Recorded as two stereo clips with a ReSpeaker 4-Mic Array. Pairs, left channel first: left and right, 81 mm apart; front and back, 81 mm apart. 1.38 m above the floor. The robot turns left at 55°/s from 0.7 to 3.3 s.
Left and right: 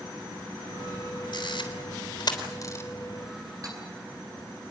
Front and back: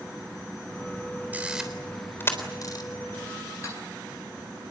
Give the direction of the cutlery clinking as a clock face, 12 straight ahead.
2 o'clock.